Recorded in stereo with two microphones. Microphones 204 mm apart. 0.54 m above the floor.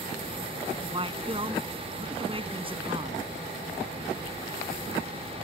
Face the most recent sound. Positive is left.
turn(degrees=-25)  # may be behind; listen again after turning